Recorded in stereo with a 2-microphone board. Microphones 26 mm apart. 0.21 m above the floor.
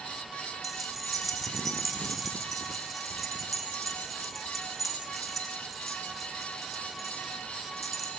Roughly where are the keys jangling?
Centre.